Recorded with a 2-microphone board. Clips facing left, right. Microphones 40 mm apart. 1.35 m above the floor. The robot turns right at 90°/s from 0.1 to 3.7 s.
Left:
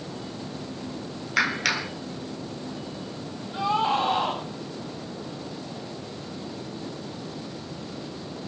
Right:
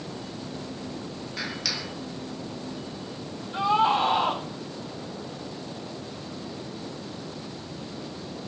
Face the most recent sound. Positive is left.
turn(degrees=0)  # may be behind; listen again after turning